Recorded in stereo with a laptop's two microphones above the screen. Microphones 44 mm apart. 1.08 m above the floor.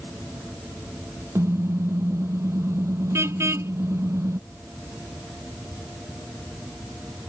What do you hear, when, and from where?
1.4 s a car horn: 85° right